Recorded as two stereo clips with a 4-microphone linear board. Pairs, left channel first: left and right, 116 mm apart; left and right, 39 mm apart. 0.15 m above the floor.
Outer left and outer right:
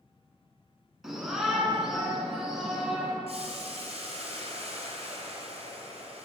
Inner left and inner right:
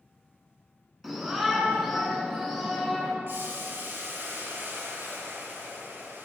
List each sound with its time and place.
1.0 s a shout: 5° right (ahead or behind), 1.3 m
3.3 s boiling: 60° right (ahead or behind), 1.1 m